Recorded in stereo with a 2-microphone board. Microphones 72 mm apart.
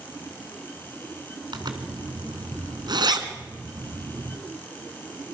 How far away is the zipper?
About 2 m.